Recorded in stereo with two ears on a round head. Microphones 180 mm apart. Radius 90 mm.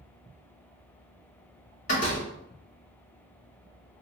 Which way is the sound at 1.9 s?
40° left (ahead or behind).